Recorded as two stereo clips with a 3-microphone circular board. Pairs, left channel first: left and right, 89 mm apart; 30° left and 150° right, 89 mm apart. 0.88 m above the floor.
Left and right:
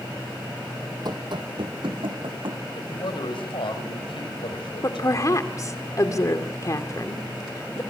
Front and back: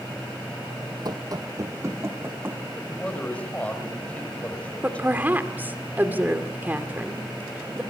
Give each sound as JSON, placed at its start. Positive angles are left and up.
{"t": 1.1, "sound": "running footsteps", "azimuth_deg": -120, "distance_m": 1.7}
{"t": 2.8, "sound": "a man speaking", "azimuth_deg": 105, "distance_m": 3.5}
{"t": 4.8, "sound": "a woman speaking", "azimuth_deg": 140, "distance_m": 2.5}